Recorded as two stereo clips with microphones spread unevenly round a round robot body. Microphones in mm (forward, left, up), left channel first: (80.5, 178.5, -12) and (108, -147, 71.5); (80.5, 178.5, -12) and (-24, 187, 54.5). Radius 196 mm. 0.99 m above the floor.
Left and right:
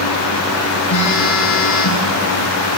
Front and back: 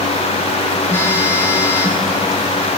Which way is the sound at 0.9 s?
60° left.